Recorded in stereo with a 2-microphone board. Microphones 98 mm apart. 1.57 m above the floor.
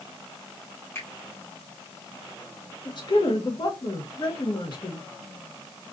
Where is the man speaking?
50° left (ahead or behind), 1.5 m.